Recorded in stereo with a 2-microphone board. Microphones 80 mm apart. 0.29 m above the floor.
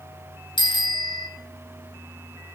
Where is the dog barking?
No dog barking in this recording.